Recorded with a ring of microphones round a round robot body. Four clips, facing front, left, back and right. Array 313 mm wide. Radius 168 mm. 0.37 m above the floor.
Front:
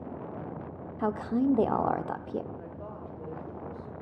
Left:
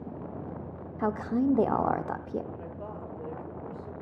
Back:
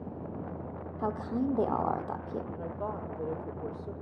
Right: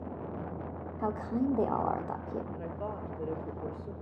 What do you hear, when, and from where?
1.0 s a woman speaking: 55° left, 0.8 m
2.5 s a woman speaking: 155° right, 1.6 m